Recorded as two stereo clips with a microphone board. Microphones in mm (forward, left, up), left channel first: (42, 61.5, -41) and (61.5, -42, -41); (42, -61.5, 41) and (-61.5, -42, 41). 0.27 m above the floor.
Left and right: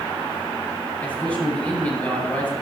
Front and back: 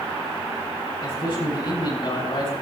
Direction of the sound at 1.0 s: 25° left.